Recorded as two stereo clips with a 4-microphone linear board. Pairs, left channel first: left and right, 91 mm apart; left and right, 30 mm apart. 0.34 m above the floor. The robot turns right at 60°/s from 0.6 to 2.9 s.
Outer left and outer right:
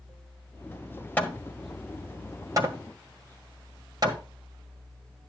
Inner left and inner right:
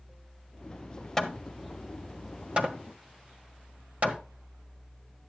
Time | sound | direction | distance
1.2 | hammering | 20° left (ahead or behind) | 1.5 m